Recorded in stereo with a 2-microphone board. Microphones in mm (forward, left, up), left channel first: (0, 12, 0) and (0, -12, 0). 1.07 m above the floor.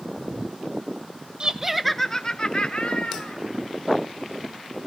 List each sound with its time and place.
1.4 s laughter: 30° right (ahead or behind), 1.1 m; by 3.4 s 55° left (ahead or behind), 2.5 m